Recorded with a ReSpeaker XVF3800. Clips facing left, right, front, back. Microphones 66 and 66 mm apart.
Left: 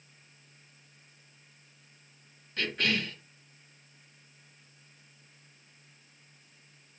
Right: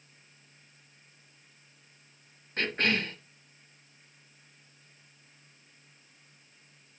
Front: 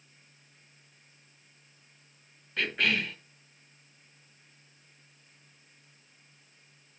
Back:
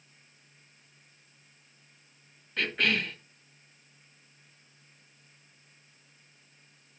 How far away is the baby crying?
I don't hear a baby crying.